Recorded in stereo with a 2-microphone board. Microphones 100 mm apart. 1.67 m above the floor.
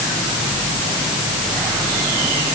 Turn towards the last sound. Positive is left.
No sound to turn to.